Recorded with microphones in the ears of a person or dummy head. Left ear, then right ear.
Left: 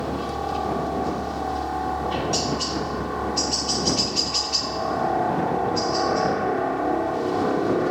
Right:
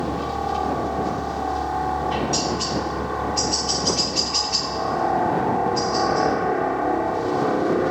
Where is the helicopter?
10° right (ahead or behind).